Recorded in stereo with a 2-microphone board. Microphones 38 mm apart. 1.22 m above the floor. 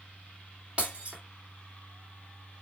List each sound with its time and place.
0.8 s breaking glass: 25° right (ahead or behind), 2.5 m